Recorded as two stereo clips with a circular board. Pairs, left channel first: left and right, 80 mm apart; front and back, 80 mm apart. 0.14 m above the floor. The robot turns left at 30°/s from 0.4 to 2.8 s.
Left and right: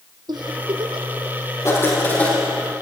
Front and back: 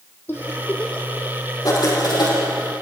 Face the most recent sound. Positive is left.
turn(degrees=5)